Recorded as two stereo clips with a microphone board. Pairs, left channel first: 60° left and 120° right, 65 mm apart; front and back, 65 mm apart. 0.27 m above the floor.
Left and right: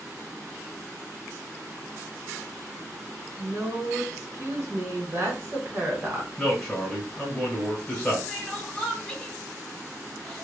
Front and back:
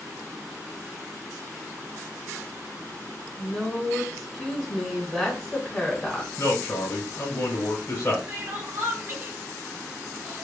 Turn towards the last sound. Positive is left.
turn(degrees=135)